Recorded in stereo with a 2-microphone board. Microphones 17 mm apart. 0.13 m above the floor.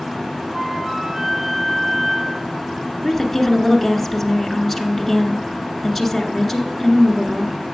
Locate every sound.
0.5 s a flute: 55° right (ahead or behind), 4 m
3.0 s a woman speaking: 5° left (ahead or behind), 1.5 m